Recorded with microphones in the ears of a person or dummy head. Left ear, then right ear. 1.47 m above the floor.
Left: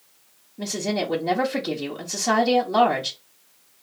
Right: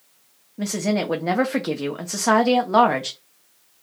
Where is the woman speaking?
45° right (ahead or behind), 1.0 m.